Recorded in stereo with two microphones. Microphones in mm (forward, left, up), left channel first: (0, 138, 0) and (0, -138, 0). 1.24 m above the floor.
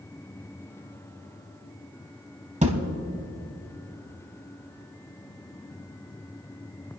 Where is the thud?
25° right (ahead or behind), 1.2 m.